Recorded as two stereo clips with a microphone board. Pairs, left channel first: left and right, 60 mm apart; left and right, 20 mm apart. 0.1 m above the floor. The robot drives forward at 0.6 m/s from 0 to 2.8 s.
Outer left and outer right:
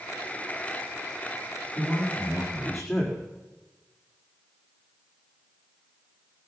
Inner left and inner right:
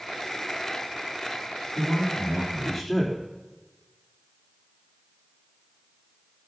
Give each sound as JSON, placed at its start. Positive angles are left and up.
{"t": 1.8, "sound": "a man speaking", "side_deg": 0, "distance_m": 5.5}